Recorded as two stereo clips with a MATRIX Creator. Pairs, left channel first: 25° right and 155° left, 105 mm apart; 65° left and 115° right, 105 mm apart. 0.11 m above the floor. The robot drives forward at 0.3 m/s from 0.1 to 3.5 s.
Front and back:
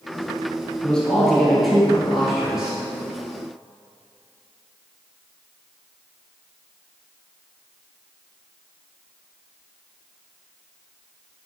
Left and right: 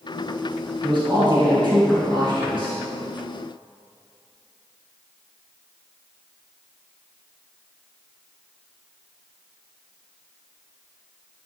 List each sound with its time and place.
0.8 s a man speaking: 100° right, 1.8 m; by 2.8 s 120° right, 2 m